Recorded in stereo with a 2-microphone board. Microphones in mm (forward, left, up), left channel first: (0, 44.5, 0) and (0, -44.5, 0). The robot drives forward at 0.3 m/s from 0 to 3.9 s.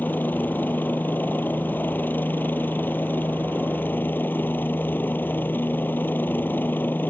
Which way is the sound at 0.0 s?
20° left (ahead or behind).